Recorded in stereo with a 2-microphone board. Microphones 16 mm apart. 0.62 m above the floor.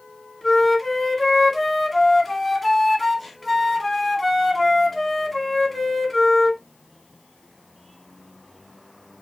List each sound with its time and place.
0.4 s a flute: 15° left (ahead or behind), 1.5 m